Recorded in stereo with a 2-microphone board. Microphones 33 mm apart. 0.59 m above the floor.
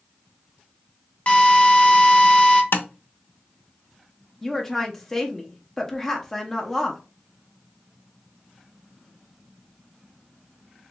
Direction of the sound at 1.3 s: 40° left (ahead or behind).